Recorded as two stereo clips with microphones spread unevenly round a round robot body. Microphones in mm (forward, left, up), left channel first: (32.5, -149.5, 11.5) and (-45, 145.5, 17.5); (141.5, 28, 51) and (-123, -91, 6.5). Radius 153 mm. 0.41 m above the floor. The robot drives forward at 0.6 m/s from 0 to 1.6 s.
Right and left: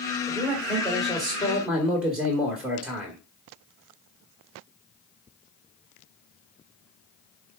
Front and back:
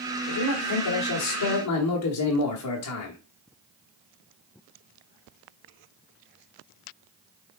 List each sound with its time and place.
0.3 s a man speaking: 10° left, 2.5 m; by 3.2 s 20° left, 1.7 m